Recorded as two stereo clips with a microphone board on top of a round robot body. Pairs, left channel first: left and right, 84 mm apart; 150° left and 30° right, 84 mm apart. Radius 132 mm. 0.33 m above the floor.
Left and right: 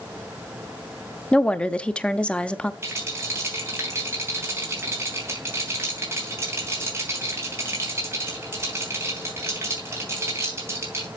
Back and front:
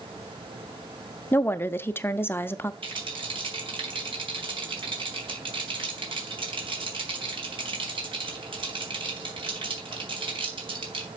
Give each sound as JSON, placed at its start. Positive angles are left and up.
{"t": 1.3, "sound": "a woman speaking", "azimuth_deg": 150, "distance_m": 0.8}
{"t": 2.8, "sound": "a rattle", "azimuth_deg": -30, "distance_m": 3.0}